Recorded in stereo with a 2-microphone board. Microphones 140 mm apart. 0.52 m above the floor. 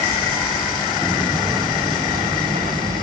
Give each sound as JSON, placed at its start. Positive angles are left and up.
{"t": 1.0, "sound": "footsteps", "side_deg": -20, "distance_m": 1.3}